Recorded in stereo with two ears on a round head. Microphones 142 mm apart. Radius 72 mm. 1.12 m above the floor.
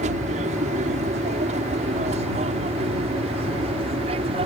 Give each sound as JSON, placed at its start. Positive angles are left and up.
{"t": 0.0, "sound": "an aircraft", "side_deg": -45}